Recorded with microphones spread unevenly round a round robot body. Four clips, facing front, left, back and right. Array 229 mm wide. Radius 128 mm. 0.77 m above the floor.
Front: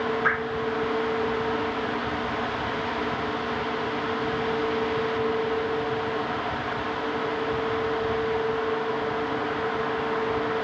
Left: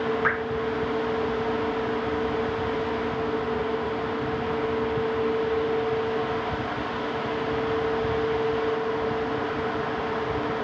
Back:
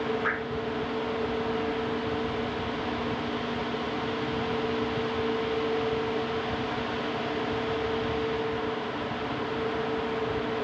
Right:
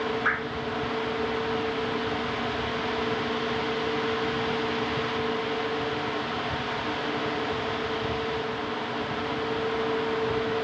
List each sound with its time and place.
0.2 s dripping: 70° left, 3.5 m